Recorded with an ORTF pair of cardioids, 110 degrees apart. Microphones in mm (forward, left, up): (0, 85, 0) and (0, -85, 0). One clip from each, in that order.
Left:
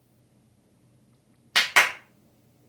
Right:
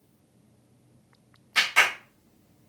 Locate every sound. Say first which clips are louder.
1.6 s a clap: left 2 dB; 65° left, 1.7 m